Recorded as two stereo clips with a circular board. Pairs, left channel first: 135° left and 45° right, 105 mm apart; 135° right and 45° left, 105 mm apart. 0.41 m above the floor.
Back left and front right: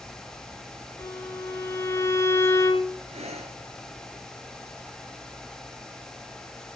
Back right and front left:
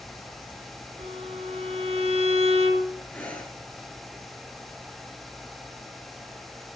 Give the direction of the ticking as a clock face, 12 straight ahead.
No ticking in this recording.